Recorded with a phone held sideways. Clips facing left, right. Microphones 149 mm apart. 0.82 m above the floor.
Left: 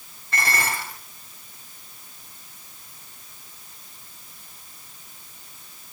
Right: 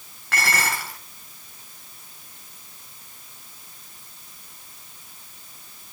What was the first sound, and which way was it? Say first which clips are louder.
Dishes clattering: right 1 dB; 85° right.